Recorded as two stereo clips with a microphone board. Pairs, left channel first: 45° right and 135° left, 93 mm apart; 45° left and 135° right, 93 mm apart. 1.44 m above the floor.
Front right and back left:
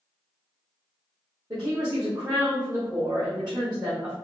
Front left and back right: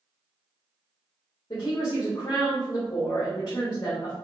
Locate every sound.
1.5 s a woman speaking: 90° left, 1.5 m